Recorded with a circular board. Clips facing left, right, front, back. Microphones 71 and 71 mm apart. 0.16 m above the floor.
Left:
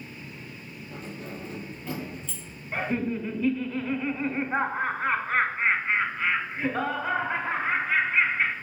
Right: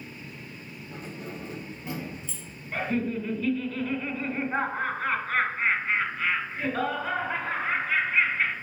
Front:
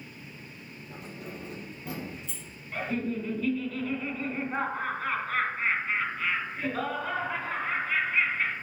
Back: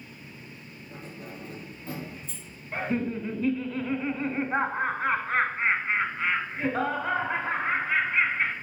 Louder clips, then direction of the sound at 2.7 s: Even, back 2 dB; 150° left.